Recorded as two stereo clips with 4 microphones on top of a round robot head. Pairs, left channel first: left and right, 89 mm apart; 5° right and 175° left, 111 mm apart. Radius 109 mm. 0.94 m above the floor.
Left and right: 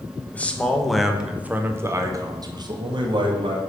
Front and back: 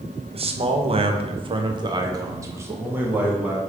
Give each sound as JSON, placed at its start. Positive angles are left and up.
{"t": 0.3, "sound": "a man speaking", "azimuth_deg": 160, "distance_m": 1.1}